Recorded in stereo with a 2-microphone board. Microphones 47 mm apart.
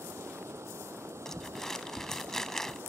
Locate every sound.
0.0 s running water: 80° right
1.2 s crumpling: 10° left (ahead or behind)